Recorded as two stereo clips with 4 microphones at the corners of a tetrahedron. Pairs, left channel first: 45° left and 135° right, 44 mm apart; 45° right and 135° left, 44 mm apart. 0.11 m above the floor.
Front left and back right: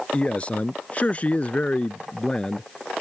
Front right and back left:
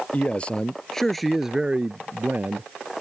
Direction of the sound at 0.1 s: 5° right.